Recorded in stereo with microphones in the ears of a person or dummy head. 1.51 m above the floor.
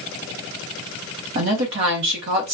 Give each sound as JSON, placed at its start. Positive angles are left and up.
{"t": 1.4, "sound": "a woman speaking", "side_deg": -50, "distance_m": 0.8}